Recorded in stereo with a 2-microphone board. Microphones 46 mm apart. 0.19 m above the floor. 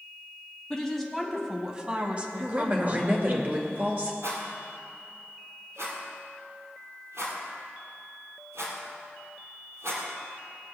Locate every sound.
0.7 s a woman speaking: 15° left (ahead or behind), 1.0 m; by 3.4 s 35° right (ahead or behind), 1.9 m
2.4 s a woman speaking: 40° right (ahead or behind), 2 m
4.2 s a rattle: 75° right (ahead or behind), 3.5 m